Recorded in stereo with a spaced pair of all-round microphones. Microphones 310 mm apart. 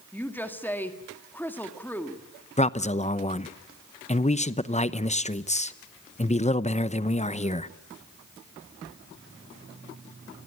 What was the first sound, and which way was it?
A woman speaking, 5° left (ahead or behind).